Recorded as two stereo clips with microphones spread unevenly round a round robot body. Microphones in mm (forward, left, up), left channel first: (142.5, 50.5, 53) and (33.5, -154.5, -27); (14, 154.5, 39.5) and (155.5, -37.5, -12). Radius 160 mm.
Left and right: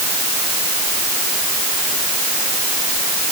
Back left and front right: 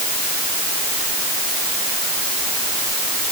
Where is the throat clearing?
No throat clearing in this recording.